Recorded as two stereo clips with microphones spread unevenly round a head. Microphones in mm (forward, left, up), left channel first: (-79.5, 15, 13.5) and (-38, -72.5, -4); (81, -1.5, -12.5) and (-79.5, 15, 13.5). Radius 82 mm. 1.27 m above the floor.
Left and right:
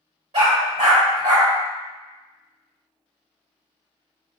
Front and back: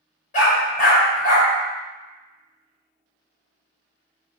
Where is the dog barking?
40° right, 1.4 m.